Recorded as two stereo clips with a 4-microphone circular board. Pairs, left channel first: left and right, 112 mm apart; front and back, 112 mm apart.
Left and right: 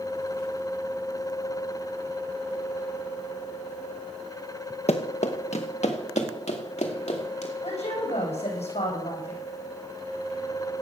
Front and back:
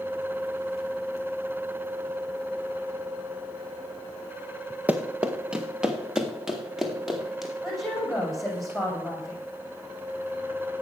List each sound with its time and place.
4.9 s running footsteps: 105° left, 1.2 m; by 7.5 s 90° left, 3.5 m
7.6 s a woman speaking: 90° left, 6 m